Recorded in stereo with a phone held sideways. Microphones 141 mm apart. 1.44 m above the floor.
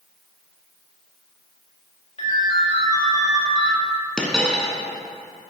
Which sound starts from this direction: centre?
A dropped coin, at 4.2 s.